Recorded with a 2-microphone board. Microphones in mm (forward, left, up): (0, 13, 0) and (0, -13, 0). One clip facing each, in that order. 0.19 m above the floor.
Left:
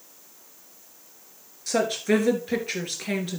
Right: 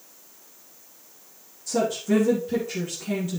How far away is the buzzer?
I don't hear a buzzer.